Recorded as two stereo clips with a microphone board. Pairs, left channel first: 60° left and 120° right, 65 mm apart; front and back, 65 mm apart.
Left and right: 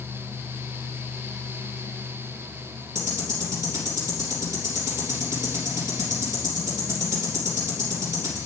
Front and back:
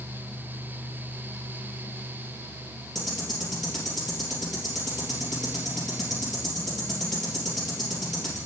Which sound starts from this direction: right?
Ticking, at 3.0 s.